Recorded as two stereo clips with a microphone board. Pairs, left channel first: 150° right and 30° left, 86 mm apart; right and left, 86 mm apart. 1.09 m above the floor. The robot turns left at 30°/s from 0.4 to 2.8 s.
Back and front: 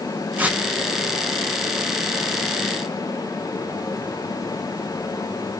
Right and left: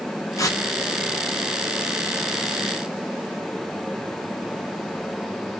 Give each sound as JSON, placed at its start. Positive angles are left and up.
{"t": 0.4, "sound": "tearing paper", "azimuth_deg": -40, "distance_m": 0.6}